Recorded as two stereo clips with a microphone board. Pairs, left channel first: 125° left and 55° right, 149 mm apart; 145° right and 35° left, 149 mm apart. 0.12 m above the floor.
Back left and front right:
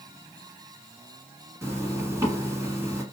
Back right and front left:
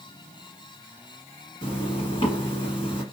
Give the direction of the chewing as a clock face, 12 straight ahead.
I don't hear chewing.